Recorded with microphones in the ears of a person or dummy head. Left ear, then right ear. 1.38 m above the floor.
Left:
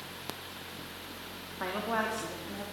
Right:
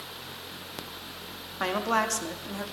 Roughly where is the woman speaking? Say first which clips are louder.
Right 6 dB; right.